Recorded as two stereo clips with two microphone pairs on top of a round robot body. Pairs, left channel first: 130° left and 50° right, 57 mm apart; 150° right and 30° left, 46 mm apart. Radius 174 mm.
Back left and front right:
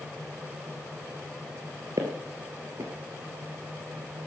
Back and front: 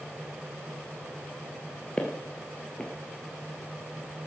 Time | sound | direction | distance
2.0 | footsteps | 80° right | 1.3 m